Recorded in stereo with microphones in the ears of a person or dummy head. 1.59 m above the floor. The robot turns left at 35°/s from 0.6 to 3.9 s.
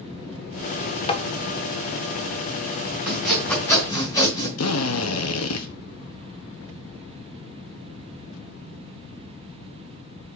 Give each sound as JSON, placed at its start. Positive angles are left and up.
{"t": 1.1, "sound": "tapping", "side_deg": 30, "distance_m": 0.8}
{"t": 3.1, "sound": "sawing", "side_deg": -5, "distance_m": 3.0}
{"t": 4.6, "sound": "a drill", "side_deg": 80, "distance_m": 1.0}